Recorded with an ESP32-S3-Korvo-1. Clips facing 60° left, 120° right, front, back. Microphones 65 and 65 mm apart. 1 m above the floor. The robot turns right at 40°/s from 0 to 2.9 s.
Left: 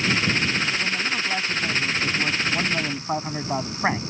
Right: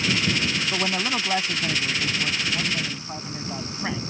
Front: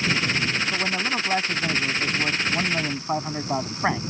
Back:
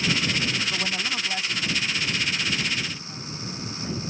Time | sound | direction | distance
0.7 | a man speaking | 80° right | ?